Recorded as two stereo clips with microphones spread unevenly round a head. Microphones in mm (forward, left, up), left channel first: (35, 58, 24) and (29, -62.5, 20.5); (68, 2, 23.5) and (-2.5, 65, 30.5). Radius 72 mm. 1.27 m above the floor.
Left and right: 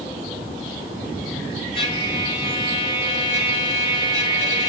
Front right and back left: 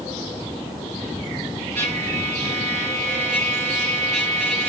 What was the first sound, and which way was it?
A trumpet, 140° left.